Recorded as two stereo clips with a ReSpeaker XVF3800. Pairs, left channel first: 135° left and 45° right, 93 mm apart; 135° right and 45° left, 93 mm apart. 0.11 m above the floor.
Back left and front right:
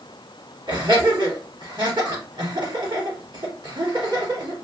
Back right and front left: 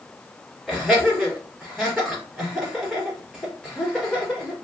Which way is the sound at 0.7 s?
45° right.